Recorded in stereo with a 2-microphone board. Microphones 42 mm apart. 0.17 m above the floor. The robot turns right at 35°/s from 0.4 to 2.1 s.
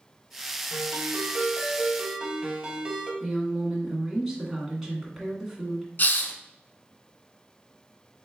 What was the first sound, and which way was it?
A ringtone, 65° right.